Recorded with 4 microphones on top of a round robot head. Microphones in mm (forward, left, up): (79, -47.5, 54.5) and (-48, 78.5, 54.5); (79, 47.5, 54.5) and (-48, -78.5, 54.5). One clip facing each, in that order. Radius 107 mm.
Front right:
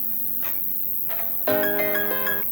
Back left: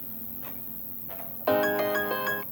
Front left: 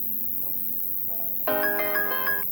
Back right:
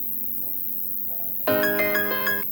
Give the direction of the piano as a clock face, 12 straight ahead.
4 o'clock.